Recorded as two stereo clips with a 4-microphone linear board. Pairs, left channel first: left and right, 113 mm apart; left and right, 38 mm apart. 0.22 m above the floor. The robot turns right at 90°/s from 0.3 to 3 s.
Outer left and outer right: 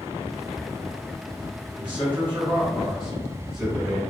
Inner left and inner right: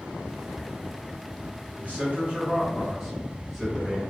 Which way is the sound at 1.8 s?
115° right.